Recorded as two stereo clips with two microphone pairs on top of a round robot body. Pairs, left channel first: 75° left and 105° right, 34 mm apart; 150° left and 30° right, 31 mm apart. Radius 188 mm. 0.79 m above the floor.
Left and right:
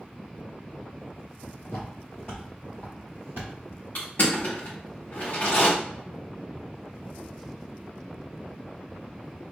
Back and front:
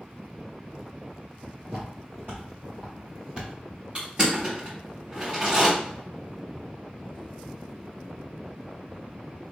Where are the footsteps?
30° left, 0.8 m; by 3.9 s 110° right, 1.2 m.